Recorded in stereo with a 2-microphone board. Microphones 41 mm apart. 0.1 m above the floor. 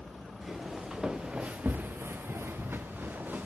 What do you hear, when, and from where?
0.4 s footsteps: 5° right (ahead or behind), 1.1 m; by 3.5 s 45° right (ahead or behind), 1.0 m